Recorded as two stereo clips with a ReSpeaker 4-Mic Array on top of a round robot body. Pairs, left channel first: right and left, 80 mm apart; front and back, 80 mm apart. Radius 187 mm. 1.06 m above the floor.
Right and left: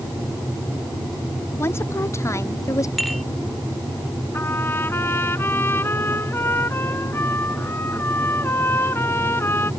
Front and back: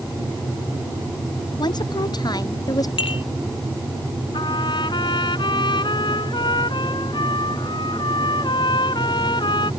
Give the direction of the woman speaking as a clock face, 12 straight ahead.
1 o'clock.